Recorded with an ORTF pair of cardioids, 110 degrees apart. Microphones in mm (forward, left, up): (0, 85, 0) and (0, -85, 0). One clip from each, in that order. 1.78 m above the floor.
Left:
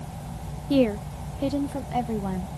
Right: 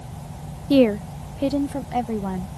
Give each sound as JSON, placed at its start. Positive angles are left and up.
{"t": 0.7, "sound": "a woman speaking", "azimuth_deg": -30}